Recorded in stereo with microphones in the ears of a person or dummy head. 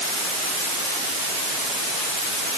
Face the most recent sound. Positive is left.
No sound to turn to.